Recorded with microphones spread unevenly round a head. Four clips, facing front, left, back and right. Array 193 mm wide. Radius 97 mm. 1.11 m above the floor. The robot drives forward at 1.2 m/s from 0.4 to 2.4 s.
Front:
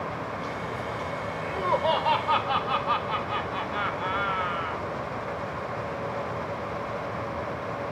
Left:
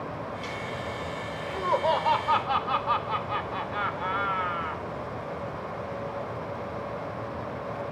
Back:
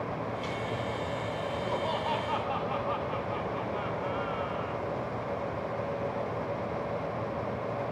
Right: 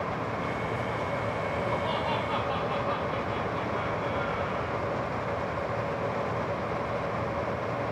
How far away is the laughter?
About 4.5 m.